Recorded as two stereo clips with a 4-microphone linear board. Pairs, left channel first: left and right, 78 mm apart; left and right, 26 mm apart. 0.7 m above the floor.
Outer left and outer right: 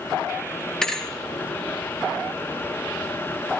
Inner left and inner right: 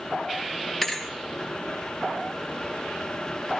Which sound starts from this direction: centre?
A thud, at 0.8 s.